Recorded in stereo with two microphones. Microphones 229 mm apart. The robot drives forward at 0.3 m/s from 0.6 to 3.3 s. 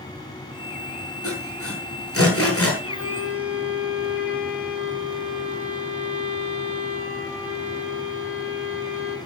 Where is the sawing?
80° left, 9 m; by 2.7 s 75° left (ahead or behind), 9 m.